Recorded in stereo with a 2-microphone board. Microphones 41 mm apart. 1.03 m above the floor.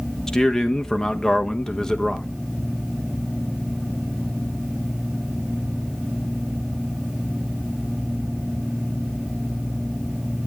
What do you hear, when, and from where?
0.3 s a man speaking: 15° left (ahead or behind), 1.2 m